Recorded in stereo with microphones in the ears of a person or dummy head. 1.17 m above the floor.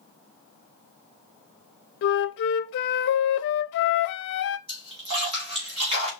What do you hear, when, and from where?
2.0 s a flute: 65° left (ahead or behind), 0.6 m
4.7 s a splash: 25° right (ahead or behind), 3.5 m